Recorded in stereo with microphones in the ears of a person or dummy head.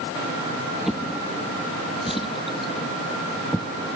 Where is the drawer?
Centre (ahead or behind).